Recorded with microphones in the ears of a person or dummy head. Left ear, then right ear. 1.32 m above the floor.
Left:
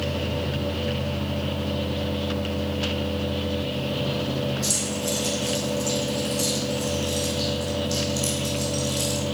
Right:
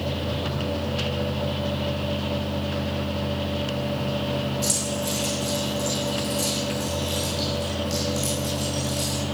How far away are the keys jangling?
About 8 m.